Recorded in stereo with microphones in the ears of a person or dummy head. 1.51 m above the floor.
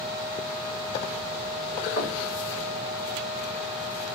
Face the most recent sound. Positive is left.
turn(degrees=85)